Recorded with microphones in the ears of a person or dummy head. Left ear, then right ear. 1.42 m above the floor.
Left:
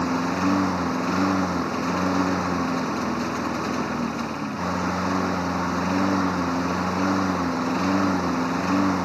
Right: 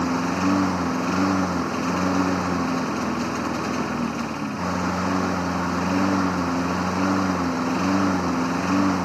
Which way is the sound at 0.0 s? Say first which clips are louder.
Even; 10° left (ahead or behind).